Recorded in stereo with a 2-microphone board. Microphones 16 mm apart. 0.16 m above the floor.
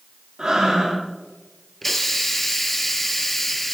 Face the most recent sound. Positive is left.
turn(degrees=10)  # may be behind; listen again after turning